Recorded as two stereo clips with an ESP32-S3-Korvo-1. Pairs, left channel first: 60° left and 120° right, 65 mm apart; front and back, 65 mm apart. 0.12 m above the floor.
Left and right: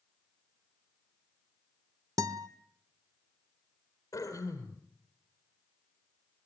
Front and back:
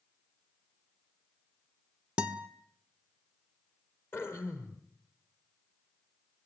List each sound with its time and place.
2.2 s a guitar: 110° right, 1.2 m
4.1 s throat clearing: 50° left, 4 m